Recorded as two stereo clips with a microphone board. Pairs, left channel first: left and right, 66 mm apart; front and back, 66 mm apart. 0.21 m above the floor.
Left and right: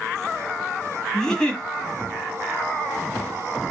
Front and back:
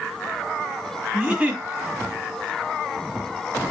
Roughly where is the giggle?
Behind left.